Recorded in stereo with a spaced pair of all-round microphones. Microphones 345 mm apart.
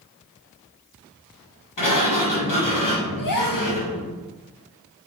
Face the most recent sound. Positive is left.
turn(degrees=65)  # may be behind; listen again after turning